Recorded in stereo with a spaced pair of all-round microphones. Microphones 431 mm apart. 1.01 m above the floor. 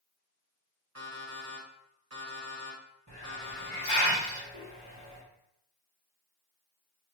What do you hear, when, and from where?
0.9 s an alarm clock: 35° right (ahead or behind), 1.9 m
3.1 s a hiss: 40° right (ahead or behind), 2 m